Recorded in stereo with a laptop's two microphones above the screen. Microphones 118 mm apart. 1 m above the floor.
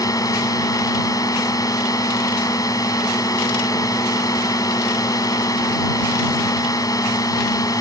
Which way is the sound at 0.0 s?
30° left (ahead or behind).